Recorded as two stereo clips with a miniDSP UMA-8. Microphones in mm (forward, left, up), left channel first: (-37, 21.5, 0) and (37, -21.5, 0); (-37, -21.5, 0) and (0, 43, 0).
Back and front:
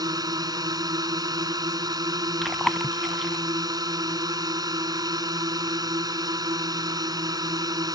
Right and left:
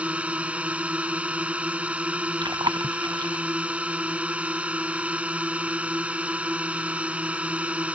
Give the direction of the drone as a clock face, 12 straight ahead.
12 o'clock.